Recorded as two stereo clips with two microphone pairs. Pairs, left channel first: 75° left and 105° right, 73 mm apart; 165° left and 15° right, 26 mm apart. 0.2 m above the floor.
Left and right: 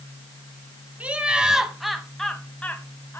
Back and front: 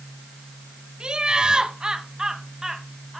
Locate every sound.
1.0 s laughter: 45° right, 1.6 m; by 3.2 s 50° left, 1.4 m